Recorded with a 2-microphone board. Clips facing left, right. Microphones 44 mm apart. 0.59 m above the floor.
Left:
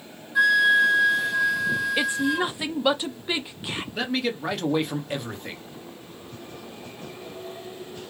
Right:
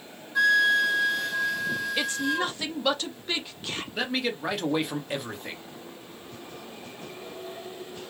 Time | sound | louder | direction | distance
0.3 | a flute | left 3 dB | 5° left (ahead or behind) | 0.8 m
2.0 | a woman speaking | left 3 dB | 15° left (ahead or behind) | 0.5 m
4.0 | a man speaking | left 2 dB | centre (ahead or behind) | 0.8 m